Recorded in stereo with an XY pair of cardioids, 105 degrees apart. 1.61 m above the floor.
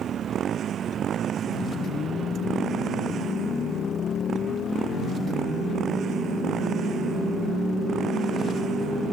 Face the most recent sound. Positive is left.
turn(degrees=-55)